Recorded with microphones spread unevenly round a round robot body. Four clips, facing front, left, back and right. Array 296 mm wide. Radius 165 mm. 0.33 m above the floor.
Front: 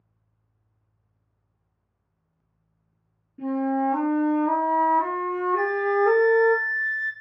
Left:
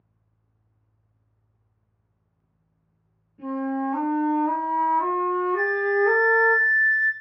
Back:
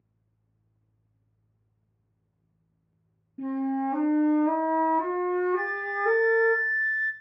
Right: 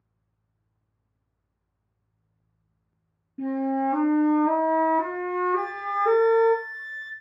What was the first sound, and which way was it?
A flute, 100° right.